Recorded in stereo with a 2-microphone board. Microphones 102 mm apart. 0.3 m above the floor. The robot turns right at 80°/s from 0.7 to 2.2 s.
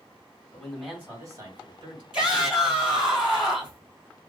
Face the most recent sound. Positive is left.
turn(degrees=-5)  # may be behind; listen again after turning